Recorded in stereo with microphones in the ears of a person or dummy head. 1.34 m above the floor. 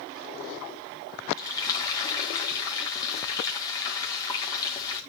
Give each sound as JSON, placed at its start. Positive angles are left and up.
{"t": 1.4, "sound": "frying", "side_deg": 20, "distance_m": 4.0}